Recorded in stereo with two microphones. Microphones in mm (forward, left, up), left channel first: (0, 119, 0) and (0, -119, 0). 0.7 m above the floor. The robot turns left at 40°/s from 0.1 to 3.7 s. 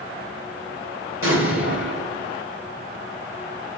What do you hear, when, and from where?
1.2 s an explosion: 95° right, 1.6 m; by 2.4 s 140° right, 1.6 m